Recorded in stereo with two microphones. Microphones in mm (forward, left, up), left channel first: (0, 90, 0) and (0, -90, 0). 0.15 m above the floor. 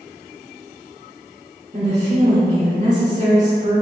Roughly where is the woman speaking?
Right.